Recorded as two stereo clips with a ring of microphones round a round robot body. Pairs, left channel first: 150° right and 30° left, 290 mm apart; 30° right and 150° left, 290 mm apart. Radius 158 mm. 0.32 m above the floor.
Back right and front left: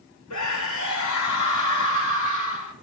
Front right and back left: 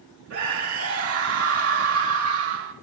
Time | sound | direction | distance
0.3 | a scream | 175° right | 4.5 m